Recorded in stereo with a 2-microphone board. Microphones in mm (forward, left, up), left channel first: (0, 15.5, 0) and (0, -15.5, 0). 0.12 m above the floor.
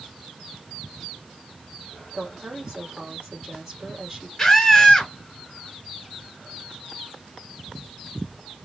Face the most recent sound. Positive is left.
turn(degrees=25)  # may be behind; listen again after turning